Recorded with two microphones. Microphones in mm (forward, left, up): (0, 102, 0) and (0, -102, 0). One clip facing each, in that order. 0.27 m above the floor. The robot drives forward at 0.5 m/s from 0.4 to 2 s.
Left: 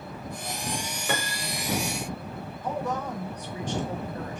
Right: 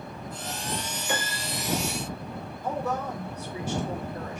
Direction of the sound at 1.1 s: 65° left (ahead or behind).